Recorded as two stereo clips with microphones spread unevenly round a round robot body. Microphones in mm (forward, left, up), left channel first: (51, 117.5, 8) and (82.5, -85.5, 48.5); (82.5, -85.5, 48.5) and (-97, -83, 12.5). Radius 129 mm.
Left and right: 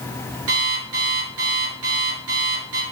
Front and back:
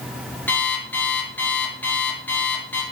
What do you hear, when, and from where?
0.5 s an alarm clock: 80° right, 4.5 m